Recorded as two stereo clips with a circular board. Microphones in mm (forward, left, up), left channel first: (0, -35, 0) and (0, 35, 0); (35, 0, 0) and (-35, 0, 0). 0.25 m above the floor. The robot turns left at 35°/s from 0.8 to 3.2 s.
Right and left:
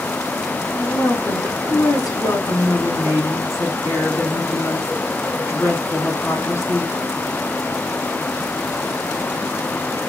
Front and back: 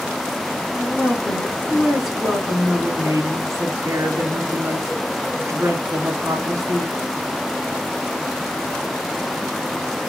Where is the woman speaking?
50° right, 3 m; by 6.9 s 135° right, 3 m.